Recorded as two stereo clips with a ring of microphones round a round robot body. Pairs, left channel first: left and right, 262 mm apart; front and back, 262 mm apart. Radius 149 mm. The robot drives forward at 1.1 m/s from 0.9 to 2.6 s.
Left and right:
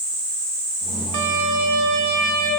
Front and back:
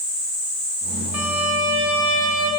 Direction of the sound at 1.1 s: 95° right.